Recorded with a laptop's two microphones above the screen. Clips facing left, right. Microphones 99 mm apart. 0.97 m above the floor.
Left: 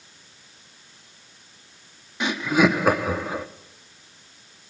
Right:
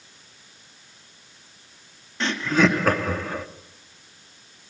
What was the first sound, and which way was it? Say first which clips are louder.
Laughter: left 1 dB; 10° left (ahead or behind).